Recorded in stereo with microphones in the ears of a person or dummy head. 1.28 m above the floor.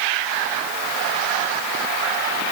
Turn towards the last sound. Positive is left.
No sound to turn to.